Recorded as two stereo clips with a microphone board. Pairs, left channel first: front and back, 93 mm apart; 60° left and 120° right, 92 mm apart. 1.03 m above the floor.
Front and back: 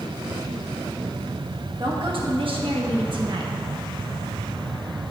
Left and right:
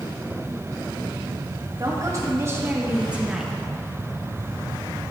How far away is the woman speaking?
About 1.5 m.